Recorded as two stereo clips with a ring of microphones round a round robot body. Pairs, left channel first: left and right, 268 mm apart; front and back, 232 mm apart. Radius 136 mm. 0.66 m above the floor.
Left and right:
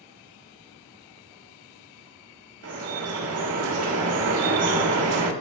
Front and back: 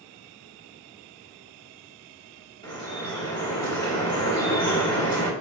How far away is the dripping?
About 1.5 m.